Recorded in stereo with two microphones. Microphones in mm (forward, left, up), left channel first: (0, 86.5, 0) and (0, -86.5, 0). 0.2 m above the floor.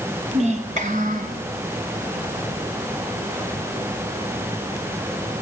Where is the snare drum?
I don't hear a snare drum.